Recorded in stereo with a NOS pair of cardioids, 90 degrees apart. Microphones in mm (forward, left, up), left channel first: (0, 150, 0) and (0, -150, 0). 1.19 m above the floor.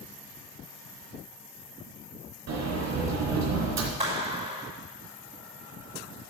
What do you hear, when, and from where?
2.5 s a sliding door: 65° right, 3 m
4.0 s a clap: 20° right, 6 m